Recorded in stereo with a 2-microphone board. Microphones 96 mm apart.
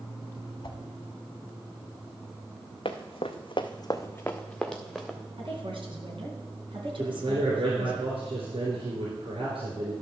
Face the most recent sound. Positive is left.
turn(degrees=-75)  # may be behind; listen again after turning